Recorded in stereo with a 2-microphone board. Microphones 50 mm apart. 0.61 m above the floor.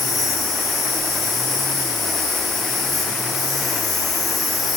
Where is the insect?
Centre (ahead or behind), 3 m.